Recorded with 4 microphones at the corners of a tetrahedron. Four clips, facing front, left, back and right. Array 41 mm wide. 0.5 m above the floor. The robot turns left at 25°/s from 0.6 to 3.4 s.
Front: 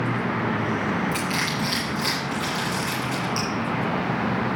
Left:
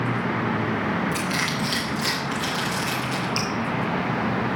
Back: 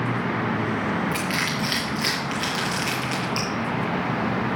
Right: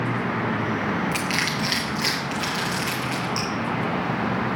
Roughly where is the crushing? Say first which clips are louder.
Right 1 dB, even; behind right.